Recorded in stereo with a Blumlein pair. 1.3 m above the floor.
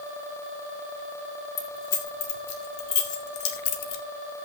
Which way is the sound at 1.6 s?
40° left.